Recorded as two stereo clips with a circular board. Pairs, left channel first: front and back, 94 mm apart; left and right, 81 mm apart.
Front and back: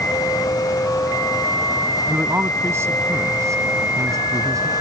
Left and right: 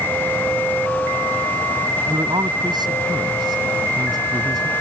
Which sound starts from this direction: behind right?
A man speaking, at 2.1 s.